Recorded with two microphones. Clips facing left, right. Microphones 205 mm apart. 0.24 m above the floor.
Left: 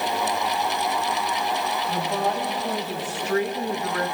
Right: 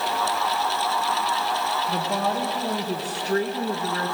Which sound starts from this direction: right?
A woman speaking, at 1.9 s.